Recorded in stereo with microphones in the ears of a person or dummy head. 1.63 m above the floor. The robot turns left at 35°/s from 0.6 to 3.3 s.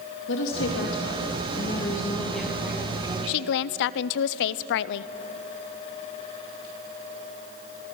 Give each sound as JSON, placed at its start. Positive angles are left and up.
{"t": 0.3, "sound": "a woman speaking", "azimuth_deg": 65, "distance_m": 2.5}
{"t": 3.3, "sound": "a woman speaking", "side_deg": 60, "distance_m": 0.6}